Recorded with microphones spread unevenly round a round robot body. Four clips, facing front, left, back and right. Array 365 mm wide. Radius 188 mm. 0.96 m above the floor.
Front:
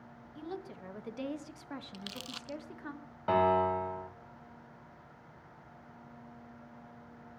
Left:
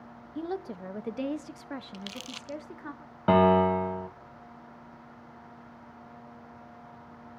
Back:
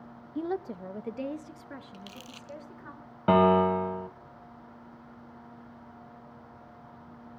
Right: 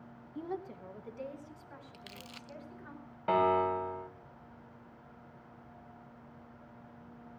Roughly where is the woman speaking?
Behind left.